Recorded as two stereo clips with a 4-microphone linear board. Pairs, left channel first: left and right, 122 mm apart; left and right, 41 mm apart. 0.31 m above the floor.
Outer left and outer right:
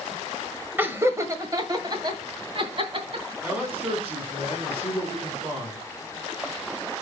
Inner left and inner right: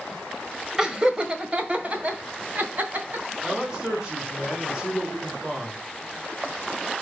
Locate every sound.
0.8 s laughter: 15° right (ahead or behind), 1.5 m; by 3.2 s 45° right (ahead or behind), 3 m
3.4 s a man speaking: 15° right (ahead or behind), 3.5 m